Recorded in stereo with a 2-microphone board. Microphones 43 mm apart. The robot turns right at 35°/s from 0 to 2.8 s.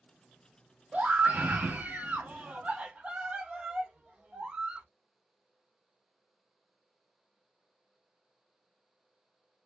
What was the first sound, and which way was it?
A scream, 110° right.